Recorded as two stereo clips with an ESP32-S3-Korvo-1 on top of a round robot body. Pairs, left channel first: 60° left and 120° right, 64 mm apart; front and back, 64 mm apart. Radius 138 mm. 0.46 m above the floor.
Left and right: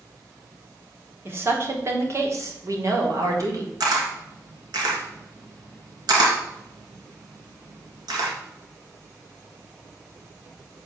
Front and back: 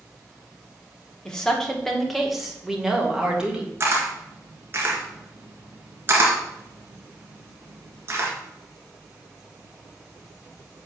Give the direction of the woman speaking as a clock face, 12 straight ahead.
2 o'clock.